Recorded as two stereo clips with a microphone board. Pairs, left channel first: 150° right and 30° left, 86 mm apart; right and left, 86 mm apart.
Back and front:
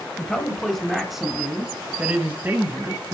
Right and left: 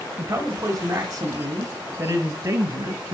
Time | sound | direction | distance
0.2 | a man speaking | 140° left | 2 m